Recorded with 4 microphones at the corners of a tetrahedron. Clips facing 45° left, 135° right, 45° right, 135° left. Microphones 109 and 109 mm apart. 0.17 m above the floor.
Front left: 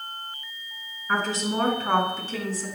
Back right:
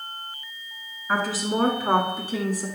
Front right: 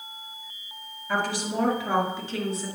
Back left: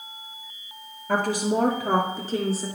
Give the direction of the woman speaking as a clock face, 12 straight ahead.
7 o'clock.